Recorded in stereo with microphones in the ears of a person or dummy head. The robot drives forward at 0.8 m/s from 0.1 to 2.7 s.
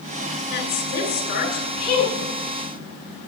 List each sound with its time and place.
0.5 s a woman speaking: 60° left (ahead or behind), 6.5 m; by 2.3 s 50° left (ahead or behind), 7.5 m